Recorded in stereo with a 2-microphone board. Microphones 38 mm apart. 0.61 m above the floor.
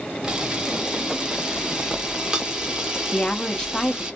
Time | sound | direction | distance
0.2 | a camera shutter | 25° right (ahead or behind) | 0.9 m
3.1 | a woman speaking | 20° left (ahead or behind) | 0.7 m